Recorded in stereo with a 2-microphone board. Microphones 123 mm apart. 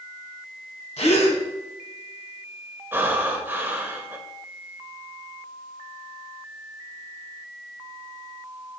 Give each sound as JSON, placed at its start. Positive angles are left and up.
{"t": 1.0, "sound": "a gasp", "side_deg": 60, "distance_m": 1.6}
{"t": 2.9, "sound": "breathing", "side_deg": -15, "distance_m": 0.9}